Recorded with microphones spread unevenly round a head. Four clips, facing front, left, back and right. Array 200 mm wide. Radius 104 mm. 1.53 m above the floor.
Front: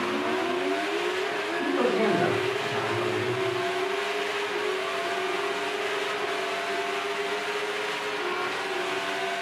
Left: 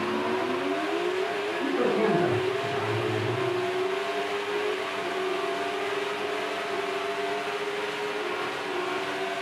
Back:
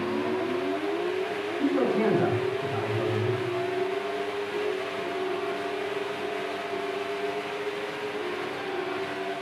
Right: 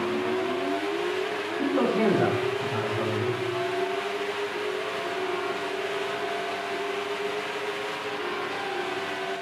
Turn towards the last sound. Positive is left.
turn(degrees=-90)